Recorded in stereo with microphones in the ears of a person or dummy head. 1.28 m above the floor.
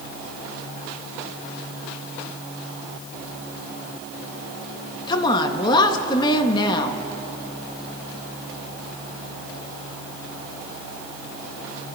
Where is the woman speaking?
25° left (ahead or behind), 1.1 m.